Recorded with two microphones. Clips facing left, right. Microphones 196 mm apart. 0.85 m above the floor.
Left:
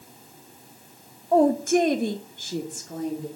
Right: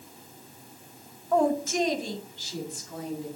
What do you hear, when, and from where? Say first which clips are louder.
1.3 s a woman speaking: left 5 dB; 30° left (ahead or behind), 0.6 m; by 3.3 s 45° left (ahead or behind), 2 m